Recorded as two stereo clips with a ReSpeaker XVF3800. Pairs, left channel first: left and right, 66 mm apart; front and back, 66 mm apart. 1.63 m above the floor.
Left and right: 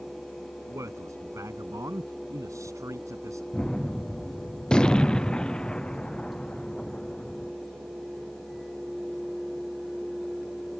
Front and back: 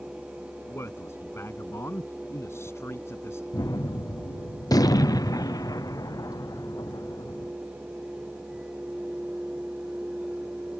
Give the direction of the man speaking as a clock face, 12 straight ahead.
2 o'clock.